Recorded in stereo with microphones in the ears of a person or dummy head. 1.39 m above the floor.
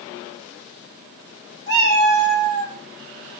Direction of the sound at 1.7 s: 25° left (ahead or behind).